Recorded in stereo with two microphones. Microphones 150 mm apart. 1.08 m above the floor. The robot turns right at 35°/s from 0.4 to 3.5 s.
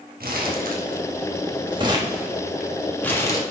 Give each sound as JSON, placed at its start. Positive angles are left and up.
{"t": 0.2, "sound": "crumpling", "side_deg": -80, "distance_m": 1.3}